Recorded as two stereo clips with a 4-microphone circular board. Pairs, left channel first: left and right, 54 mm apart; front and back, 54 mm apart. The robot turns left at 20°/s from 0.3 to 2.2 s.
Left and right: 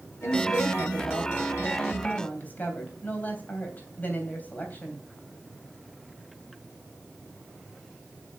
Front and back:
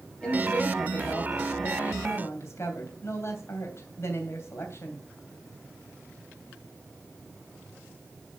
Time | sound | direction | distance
0.2 | a woman speaking | 70° left | 3 m